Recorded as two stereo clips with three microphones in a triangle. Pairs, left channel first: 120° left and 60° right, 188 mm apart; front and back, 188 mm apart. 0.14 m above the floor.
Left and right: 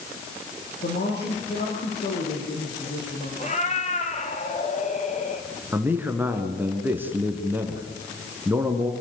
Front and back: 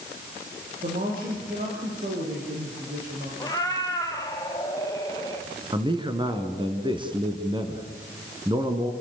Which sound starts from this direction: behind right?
A man speaking, at 5.7 s.